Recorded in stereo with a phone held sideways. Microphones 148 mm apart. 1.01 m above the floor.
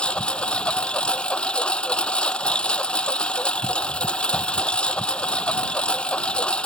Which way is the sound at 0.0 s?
5° left (ahead or behind).